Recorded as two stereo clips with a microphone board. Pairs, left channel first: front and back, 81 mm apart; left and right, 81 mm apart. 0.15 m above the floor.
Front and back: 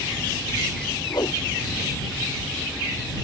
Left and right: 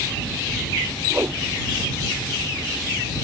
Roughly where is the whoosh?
Ahead right.